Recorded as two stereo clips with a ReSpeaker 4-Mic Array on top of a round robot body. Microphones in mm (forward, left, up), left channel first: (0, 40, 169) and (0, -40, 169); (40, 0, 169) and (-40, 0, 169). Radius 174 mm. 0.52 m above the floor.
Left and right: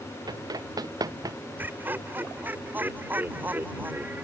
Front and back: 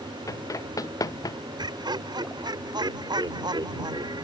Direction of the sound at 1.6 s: 155° right.